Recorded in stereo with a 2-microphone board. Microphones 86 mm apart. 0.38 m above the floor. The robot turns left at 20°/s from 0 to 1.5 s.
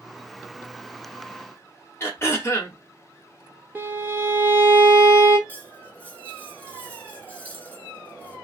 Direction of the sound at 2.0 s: 30° left (ahead or behind).